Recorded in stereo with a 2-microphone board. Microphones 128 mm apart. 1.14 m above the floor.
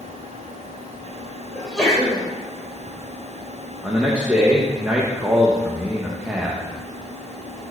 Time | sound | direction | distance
1.6 | a sneeze | 5° left (ahead or behind) | 4.5 m
3.8 | a man speaking | 10° right (ahead or behind) | 1.4 m